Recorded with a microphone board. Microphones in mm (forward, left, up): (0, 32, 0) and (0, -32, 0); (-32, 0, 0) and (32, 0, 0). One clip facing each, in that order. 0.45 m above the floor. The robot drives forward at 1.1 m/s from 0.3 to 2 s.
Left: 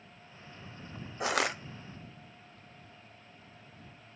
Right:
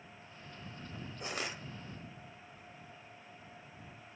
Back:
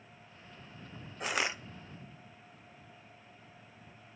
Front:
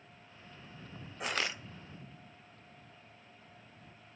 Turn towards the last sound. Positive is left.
turn(degrees=140)